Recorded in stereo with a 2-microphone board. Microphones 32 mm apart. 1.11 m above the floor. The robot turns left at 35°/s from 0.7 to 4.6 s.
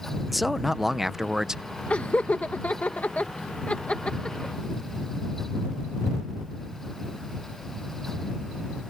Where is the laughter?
50° left (ahead or behind); by 4.5 s 25° left (ahead or behind).